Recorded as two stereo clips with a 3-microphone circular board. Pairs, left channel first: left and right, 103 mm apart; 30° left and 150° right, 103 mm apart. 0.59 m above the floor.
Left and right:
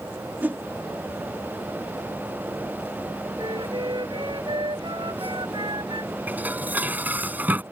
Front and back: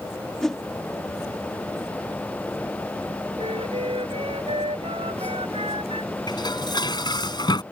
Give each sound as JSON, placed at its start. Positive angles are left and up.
{"t": 0.4, "sound": "a whoosh", "azimuth_deg": -50}
{"t": 3.4, "sound": "a flute", "azimuth_deg": -130}
{"t": 6.3, "sound": "dishes clattering", "azimuth_deg": -15}